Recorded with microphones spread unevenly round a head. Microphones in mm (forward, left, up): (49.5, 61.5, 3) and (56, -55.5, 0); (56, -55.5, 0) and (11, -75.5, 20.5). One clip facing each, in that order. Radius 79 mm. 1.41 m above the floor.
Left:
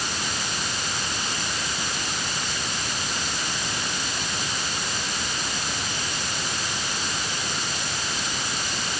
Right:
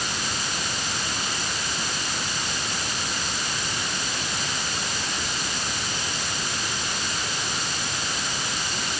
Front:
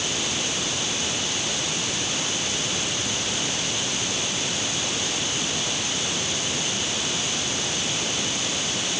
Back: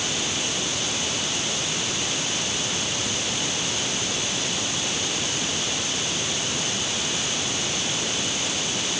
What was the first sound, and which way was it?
Only background noise.